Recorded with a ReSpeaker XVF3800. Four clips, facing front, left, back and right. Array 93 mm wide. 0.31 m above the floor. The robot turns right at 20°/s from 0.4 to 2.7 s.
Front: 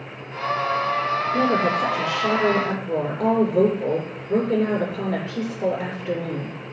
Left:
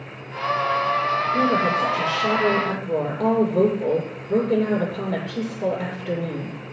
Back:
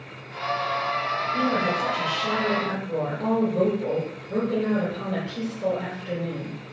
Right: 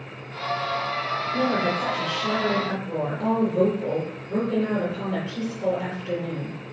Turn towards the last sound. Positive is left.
turn(degrees=35)